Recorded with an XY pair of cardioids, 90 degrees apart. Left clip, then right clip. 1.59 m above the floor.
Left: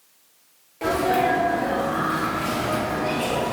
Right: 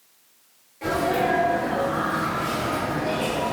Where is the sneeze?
70° left, 1.0 m.